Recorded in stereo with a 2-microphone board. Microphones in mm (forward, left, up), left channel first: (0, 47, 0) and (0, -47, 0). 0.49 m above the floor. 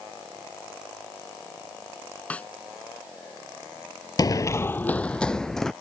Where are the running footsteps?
40° left (ahead or behind); by 5.7 s 5° left (ahead or behind).